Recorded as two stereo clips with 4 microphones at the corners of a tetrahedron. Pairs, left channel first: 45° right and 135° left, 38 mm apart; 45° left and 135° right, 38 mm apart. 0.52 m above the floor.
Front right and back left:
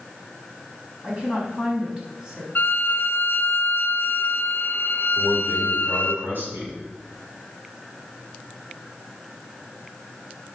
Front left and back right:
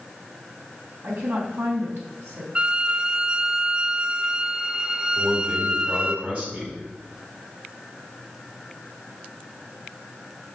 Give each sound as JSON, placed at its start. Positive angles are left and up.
{"t": 1.0, "sound": "a woman speaking", "azimuth_deg": -160, "distance_m": 4.5}
{"t": 2.5, "sound": "a violin", "azimuth_deg": -80, "distance_m": 0.9}
{"t": 5.2, "sound": "a man speaking", "azimuth_deg": 170, "distance_m": 4.0}